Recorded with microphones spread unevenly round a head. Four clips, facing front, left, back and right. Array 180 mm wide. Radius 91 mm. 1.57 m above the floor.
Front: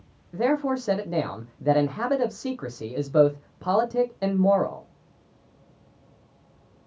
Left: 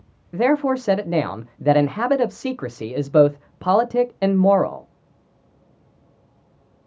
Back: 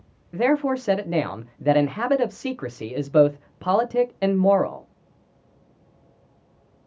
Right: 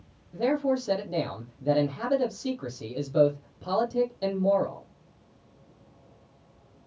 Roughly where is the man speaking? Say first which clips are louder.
Left 7 dB, back 3 dB; left.